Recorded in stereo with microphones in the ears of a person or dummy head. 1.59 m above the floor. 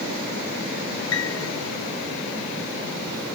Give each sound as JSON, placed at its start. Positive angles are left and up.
{"t": 1.1, "sound": "a piano", "side_deg": 80}